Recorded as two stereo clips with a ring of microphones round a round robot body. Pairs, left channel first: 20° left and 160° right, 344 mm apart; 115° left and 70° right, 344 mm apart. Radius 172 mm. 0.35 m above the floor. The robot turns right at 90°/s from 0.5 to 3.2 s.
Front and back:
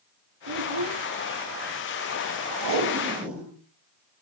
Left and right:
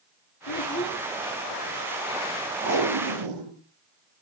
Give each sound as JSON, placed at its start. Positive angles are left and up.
{"t": 0.5, "sound": "a child speaking", "azimuth_deg": 155, "distance_m": 1.6}
{"t": 2.6, "sound": "tape being pulled", "azimuth_deg": -125, "distance_m": 6.5}